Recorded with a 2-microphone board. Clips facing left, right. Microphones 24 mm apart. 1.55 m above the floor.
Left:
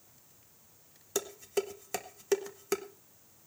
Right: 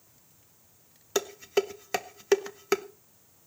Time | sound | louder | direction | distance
1.1 | dishes clattering | right 6 dB | 30° right (ahead or behind) | 0.7 m